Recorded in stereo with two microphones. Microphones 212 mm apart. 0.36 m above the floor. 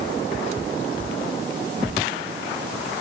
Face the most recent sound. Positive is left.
No sound to turn to.